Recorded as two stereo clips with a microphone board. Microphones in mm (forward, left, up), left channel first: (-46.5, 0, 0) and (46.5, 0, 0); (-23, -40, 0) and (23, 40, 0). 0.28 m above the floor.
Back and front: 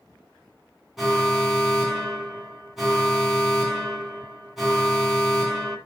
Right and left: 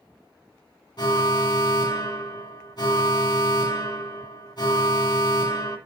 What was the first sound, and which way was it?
An alarm, 90° right.